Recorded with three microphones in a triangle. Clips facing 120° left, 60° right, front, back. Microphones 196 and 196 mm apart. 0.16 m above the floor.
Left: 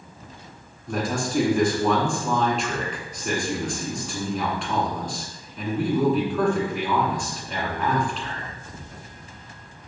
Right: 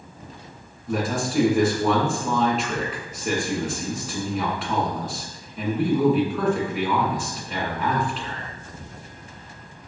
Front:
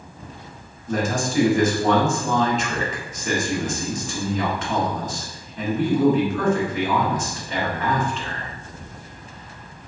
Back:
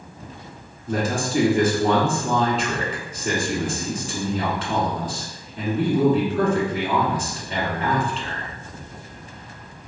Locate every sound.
0.9 s a man speaking: 150° right, 1.3 m